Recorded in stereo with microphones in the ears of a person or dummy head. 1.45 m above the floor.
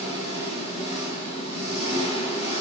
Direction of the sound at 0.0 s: 30° left (ahead or behind).